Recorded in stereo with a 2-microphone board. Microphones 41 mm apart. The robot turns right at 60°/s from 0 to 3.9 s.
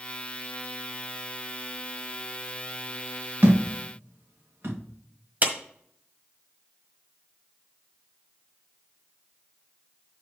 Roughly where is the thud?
Right.